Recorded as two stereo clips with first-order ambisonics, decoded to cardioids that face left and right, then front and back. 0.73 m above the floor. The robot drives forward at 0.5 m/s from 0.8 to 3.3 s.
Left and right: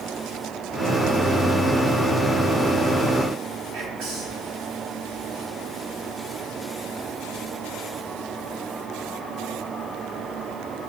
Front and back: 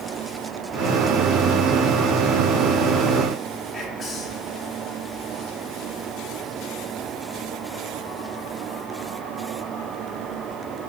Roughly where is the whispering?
Ahead right.